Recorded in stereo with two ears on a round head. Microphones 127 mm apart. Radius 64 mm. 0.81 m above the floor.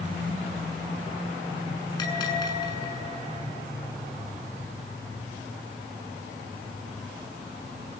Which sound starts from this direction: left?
A bell, at 2.0 s.